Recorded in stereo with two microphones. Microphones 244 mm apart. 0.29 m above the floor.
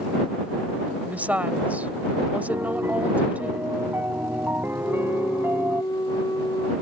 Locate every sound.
1.1 s a woman speaking: 5° right (ahead or behind)
2.5 s a piano: 10° right (ahead or behind)
4.8 s a flute: 15° left (ahead or behind)